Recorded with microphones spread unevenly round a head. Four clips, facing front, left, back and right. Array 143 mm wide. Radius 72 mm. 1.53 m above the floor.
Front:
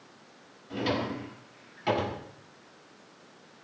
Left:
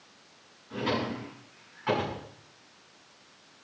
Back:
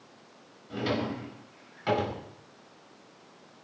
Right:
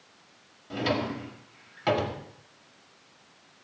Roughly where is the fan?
I don't hear a fan.